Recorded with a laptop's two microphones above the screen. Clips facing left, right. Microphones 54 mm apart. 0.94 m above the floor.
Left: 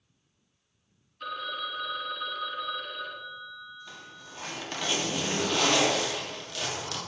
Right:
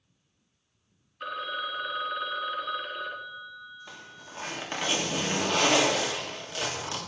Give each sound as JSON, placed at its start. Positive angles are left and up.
{"t": 1.2, "sound": "a phone ringing", "side_deg": -20, "distance_m": 0.8}
{"t": 3.9, "sound": "a zipper", "side_deg": -20, "distance_m": 1.7}